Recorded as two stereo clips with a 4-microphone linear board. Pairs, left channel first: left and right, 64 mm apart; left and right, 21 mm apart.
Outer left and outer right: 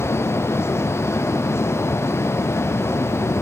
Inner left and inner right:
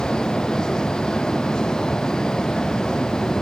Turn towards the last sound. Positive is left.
No sound to turn to.